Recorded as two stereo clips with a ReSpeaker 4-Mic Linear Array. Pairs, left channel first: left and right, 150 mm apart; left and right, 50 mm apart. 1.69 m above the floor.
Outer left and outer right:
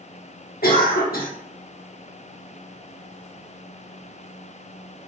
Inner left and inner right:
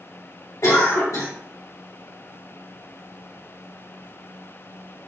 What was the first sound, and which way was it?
A cough, 80° left.